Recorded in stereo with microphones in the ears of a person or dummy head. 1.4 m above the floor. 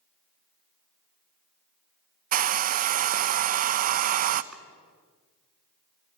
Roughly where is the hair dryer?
Right.